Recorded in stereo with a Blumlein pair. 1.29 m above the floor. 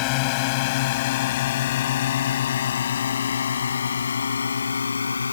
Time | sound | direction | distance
0.0 | a drone | 45° left | ?